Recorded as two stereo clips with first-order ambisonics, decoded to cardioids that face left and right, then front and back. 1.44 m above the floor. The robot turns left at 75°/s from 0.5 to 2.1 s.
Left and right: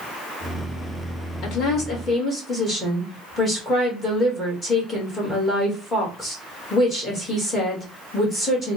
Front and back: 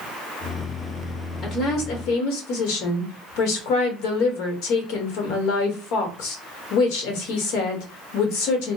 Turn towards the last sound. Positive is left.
turn(degrees=15)